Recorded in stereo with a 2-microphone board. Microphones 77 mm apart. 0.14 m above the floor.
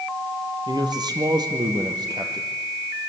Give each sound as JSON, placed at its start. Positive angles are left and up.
{"t": 0.7, "sound": "a man speaking", "side_deg": -70, "distance_m": 3.0}